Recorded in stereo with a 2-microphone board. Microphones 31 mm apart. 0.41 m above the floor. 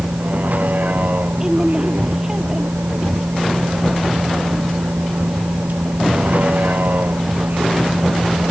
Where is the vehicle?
55° right (ahead or behind); by 8.5 s 70° right (ahead or behind).